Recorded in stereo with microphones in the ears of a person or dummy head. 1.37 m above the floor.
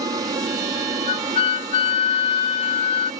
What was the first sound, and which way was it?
An aircraft, 20° right (ahead or behind).